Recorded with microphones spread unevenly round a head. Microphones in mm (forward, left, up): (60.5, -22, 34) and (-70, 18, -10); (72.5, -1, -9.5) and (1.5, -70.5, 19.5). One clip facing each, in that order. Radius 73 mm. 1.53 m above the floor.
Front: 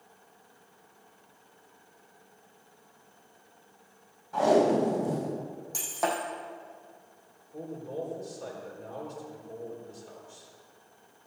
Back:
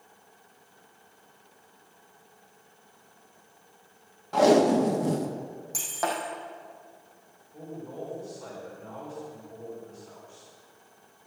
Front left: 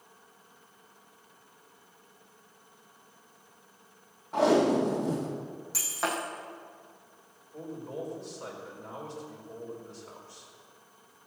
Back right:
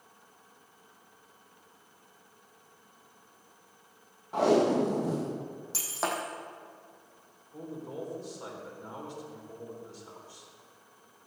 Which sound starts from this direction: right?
Breaking glass, at 5.7 s.